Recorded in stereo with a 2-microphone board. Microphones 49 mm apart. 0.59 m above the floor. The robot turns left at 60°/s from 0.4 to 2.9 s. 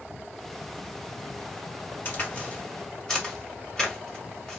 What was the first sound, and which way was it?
A crack, 40° left (ahead or behind).